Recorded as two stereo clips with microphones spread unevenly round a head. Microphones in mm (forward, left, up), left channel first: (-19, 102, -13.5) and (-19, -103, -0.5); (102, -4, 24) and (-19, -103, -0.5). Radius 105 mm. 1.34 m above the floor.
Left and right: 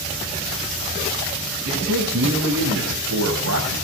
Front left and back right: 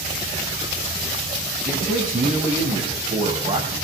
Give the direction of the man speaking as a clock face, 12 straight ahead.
4 o'clock.